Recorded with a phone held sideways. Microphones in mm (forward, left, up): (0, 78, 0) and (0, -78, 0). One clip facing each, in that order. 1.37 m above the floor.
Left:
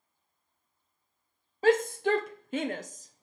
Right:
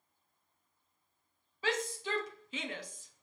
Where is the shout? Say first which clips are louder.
Left 12 dB; 50° left (ahead or behind), 0.7 m; by 3.2 s 40° left (ahead or behind), 1.0 m.